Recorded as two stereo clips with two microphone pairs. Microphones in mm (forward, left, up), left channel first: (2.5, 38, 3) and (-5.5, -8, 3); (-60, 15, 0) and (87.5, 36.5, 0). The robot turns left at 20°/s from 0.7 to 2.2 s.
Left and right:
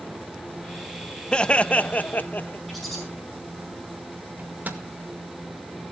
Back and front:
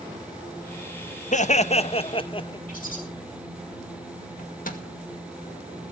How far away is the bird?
About 5 m.